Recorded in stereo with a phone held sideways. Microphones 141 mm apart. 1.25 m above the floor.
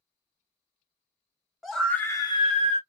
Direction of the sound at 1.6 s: Centre (ahead or behind).